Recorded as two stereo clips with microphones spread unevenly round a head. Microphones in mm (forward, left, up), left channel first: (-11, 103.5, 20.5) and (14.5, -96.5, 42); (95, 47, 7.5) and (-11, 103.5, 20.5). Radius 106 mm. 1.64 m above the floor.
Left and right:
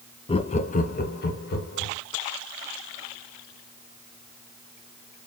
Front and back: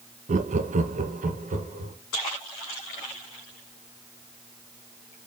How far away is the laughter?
About 0.5 m.